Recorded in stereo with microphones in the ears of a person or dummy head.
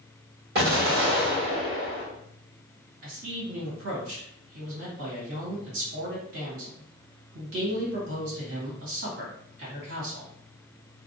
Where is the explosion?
65° right (ahead or behind), 1.6 m.